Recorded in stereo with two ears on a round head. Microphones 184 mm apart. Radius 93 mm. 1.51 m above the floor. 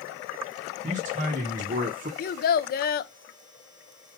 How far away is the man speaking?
About 2.5 m.